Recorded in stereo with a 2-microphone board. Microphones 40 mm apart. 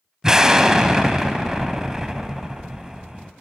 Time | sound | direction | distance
0.2 | an explosion | 15° right (ahead or behind) | 0.6 m